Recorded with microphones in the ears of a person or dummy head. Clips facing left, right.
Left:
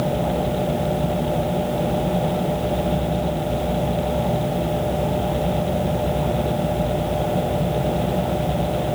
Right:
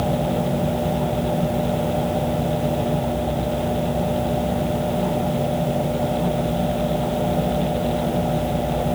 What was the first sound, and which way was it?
Only background noise.